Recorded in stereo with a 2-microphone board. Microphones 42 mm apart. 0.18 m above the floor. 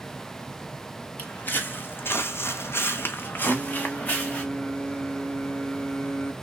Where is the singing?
30° left (ahead or behind), 0.7 m.